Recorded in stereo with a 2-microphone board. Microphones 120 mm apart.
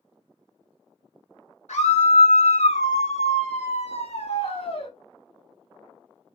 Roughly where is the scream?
Left.